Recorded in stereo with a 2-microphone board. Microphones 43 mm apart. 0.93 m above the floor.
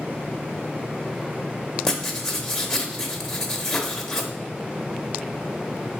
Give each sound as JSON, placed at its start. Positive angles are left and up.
{"t": 1.9, "sound": "writing", "side_deg": 10, "distance_m": 0.9}